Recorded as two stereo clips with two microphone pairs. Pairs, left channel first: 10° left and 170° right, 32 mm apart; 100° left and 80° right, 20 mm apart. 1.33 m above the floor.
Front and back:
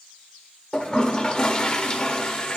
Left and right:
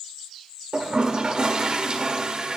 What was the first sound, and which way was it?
A toilet flushing, 45° right.